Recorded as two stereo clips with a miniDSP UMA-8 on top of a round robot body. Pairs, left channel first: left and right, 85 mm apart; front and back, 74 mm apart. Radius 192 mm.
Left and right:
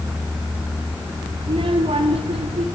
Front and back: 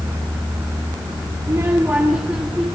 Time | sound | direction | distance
1.4 | a child speaking | 125° right | 1.9 m